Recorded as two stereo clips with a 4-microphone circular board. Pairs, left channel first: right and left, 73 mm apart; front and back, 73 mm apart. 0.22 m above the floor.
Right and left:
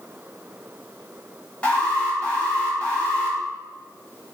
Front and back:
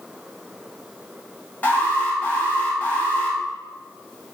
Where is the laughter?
No laughter in this recording.